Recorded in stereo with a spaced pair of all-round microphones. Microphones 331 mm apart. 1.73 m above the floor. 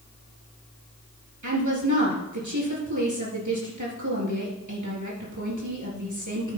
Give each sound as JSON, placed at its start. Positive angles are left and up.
{"t": 1.4, "sound": "a woman speaking", "side_deg": -65, "distance_m": 3.5}